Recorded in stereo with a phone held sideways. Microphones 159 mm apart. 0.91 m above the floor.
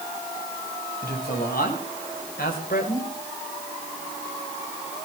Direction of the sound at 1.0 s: 85° left.